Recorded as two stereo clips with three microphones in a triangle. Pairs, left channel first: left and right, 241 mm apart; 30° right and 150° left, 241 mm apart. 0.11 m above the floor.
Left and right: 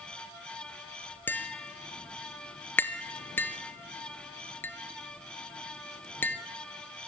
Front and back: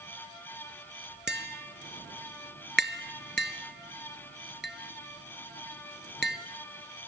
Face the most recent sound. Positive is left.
turn(degrees=170)